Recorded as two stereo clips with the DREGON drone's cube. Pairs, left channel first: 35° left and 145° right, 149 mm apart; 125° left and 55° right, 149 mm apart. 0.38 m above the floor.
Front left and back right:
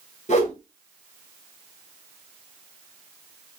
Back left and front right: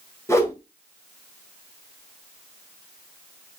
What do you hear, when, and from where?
0.3 s a whoosh: 55° left, 2.5 m